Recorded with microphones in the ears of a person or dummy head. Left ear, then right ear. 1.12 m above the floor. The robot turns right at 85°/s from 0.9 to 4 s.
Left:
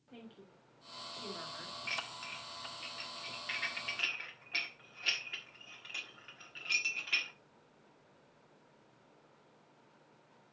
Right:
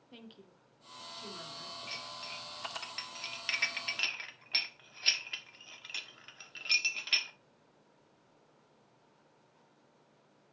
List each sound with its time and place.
0.1 s a woman speaking: 35° right, 1.9 m; by 1.8 s 40° left, 1.9 m
1.9 s dishes clattering: 30° left (ahead or behind), 1.3 m; by 7.3 s 30° right (ahead or behind), 1.3 m